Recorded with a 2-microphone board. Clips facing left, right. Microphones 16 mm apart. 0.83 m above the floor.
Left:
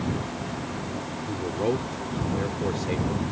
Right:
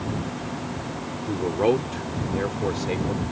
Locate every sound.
1.3 s a man speaking: 40° right (ahead or behind); by 3.2 s 5° right (ahead or behind)